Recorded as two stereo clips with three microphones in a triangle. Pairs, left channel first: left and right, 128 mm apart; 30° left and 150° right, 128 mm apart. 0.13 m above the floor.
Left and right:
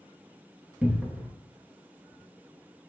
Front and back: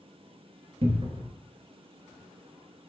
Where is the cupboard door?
165° right, 0.7 m.